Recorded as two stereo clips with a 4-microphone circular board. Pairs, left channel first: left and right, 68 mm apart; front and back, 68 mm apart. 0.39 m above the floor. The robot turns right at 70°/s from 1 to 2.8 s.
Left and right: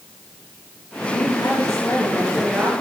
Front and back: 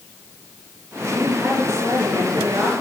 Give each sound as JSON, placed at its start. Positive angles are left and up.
{"t": 1.0, "sound": "a woman speaking", "azimuth_deg": 85, "distance_m": 6.0}